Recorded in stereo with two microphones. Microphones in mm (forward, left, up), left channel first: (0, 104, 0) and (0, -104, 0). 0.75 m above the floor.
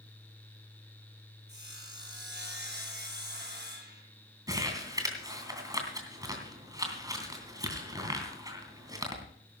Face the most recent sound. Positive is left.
turn(degrees=-20)  # may be behind; listen again after turning